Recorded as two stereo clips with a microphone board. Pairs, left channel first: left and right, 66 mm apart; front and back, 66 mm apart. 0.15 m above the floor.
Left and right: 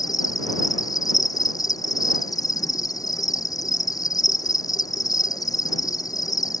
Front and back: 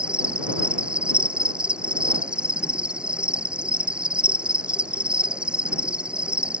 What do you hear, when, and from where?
0.0 s an insect: 105° left